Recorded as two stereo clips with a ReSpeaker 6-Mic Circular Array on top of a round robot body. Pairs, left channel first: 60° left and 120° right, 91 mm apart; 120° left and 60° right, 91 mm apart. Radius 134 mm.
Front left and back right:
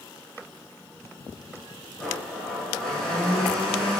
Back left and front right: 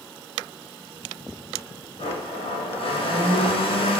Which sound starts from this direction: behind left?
A blender, at 2.0 s.